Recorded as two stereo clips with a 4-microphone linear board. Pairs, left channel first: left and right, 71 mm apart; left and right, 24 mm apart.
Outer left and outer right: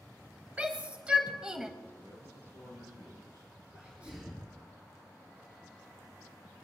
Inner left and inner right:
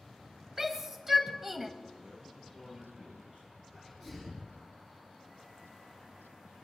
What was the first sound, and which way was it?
A shout, 20° right (ahead or behind).